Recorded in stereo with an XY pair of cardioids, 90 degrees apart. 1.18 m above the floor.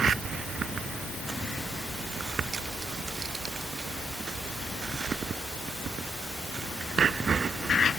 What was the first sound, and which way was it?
Only background noise.